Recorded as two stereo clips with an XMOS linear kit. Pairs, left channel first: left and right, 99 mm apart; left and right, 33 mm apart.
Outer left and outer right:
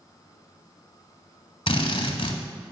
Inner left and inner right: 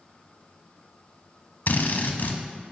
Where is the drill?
65° left (ahead or behind), 0.8 m.